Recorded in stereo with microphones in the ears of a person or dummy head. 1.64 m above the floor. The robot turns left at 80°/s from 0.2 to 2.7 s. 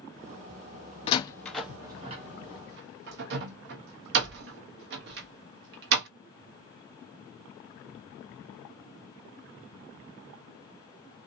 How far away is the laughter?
I don't hear laughter.